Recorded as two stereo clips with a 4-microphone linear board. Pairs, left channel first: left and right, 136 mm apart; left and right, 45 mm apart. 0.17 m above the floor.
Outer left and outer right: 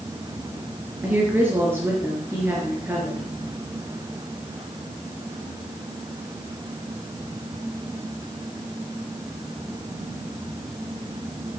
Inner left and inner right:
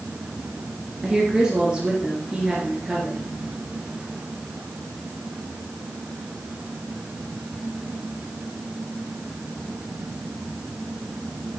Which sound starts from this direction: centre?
A woman speaking, at 1.0 s.